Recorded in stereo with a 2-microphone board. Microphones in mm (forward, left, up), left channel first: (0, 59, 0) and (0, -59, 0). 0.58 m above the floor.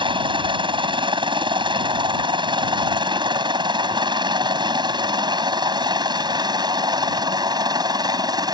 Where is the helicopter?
40° right (ahead or behind); by 8.6 s 35° right (ahead or behind).